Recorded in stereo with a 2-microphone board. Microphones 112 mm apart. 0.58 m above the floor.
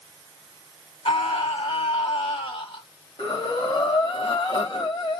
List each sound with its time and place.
1.1 s a scream: 55° left (ahead or behind), 1.9 m
3.2 s breathing: 45° left (ahead or behind), 2 m